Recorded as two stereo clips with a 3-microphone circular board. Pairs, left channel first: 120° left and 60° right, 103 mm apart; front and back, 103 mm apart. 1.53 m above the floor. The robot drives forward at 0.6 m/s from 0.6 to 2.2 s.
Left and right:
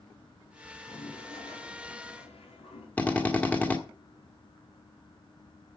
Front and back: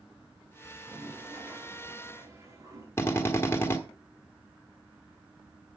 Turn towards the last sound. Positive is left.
turn(degrees=50)